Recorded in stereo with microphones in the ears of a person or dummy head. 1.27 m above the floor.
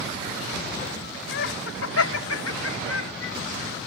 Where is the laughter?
60° left (ahead or behind); by 3.4 s 75° left (ahead or behind).